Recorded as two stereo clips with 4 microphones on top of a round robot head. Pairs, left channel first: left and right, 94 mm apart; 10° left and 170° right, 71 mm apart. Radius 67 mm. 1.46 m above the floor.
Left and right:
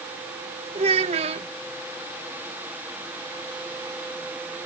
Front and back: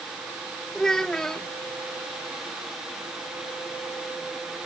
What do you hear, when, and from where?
0.8 s a child speaking: 75° right